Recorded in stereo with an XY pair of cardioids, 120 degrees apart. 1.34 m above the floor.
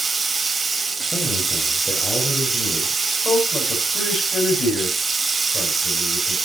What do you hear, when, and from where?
0.0 s running water: 20° right, 1.4 m
1.1 s a man speaking: 20° left, 6 m
3.0 s a man speaking: 30° left, 7.5 m